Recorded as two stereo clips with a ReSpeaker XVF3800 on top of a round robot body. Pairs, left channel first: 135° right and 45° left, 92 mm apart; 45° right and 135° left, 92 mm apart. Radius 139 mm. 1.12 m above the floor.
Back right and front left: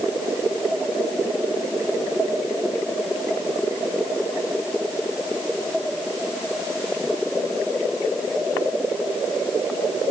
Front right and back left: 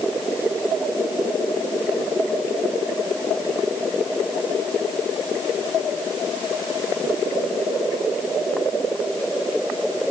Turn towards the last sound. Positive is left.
No sound to turn to.